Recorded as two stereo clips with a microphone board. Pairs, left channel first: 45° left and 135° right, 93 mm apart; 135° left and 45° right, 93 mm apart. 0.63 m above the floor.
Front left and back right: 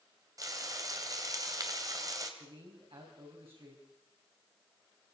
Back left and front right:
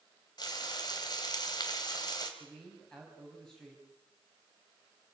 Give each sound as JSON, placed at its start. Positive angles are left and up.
{"t": 0.4, "sound": "frying", "azimuth_deg": 175, "distance_m": 2.5}
{"t": 2.4, "sound": "a man speaking", "azimuth_deg": -145, "distance_m": 4.5}